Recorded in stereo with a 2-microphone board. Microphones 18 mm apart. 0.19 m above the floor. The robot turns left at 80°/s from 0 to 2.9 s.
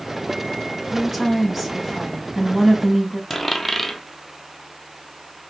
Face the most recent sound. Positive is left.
turn(degrees=15)  # may be behind; listen again after turning